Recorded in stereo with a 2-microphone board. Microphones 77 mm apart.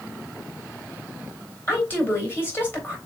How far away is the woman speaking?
About 3 m.